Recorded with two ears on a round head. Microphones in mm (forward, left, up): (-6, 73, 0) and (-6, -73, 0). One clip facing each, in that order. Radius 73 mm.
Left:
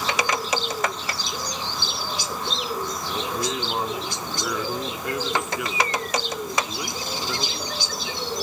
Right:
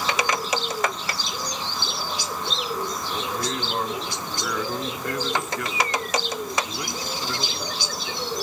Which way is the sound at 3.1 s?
5° left (ahead or behind).